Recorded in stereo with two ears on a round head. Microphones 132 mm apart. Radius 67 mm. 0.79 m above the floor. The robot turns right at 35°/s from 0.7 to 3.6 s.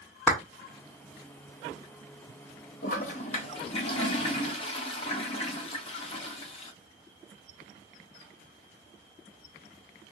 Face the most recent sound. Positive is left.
turn(degrees=40)  # may be behind; listen again after turning